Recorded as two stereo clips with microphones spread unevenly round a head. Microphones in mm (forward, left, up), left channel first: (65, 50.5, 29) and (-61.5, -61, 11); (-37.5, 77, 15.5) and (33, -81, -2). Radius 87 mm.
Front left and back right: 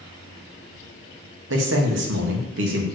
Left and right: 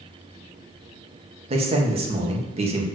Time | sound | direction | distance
1.5 | a man speaking | 125° right | 1.5 m